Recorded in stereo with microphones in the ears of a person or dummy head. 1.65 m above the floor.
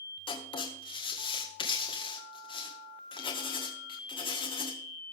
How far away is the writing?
About 1.7 m.